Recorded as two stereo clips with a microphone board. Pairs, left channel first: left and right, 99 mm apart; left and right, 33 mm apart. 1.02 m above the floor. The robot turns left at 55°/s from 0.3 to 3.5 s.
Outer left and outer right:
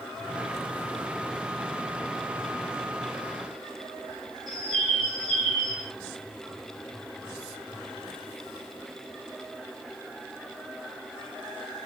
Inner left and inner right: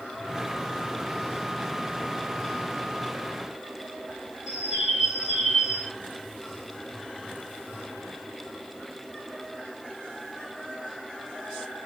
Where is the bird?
5° right (ahead or behind), 1.3 m.